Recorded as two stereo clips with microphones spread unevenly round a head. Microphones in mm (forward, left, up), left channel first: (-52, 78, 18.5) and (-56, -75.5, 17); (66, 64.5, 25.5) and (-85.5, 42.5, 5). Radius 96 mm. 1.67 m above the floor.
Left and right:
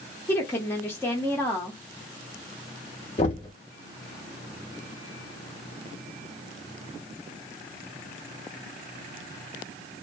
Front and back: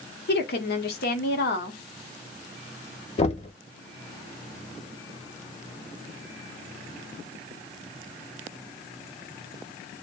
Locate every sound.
0.3 s a woman speaking: 10° left, 0.7 m
3.2 s knocking: 35° left, 0.5 m